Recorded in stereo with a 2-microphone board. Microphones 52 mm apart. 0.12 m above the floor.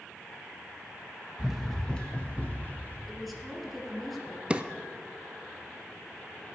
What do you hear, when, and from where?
1.4 s running footsteps: 15° right (ahead or behind), 0.8 m; by 3.0 s 35° left (ahead or behind), 2 m
3.1 s a woman speaking: centre (ahead or behind), 2.0 m
4.5 s a drawer: 20° right (ahead or behind), 0.5 m